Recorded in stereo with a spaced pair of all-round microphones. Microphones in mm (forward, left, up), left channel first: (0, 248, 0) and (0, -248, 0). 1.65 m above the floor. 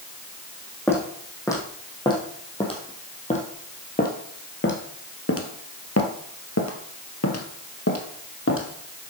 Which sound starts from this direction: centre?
Footsteps, at 0.9 s.